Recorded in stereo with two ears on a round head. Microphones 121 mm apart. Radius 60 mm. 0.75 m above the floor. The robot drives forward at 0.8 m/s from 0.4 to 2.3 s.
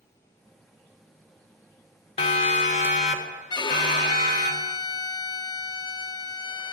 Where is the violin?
30° left (ahead or behind), 0.5 m.